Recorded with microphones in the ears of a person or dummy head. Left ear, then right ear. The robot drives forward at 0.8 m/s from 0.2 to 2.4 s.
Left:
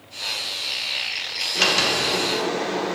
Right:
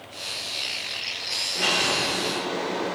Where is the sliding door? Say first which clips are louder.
Left 4 dB; 45° left (ahead or behind), 1.4 m; by 3.0 s 60° left (ahead or behind), 1.2 m.